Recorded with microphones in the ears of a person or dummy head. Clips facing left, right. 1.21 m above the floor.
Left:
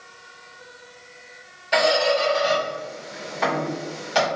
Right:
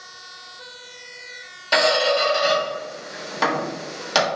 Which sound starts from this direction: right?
A squeak, at 1.7 s.